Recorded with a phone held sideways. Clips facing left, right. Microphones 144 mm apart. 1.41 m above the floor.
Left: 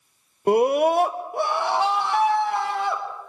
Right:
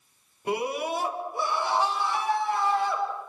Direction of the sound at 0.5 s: 55° left (ahead or behind).